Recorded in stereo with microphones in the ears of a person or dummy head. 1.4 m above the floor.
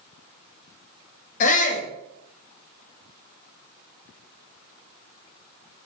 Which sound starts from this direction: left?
A shout, at 1.4 s.